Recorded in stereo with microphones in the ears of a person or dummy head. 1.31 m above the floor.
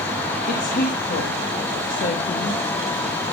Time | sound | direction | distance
0.5 | a woman speaking | 40° left (ahead or behind) | 1.5 m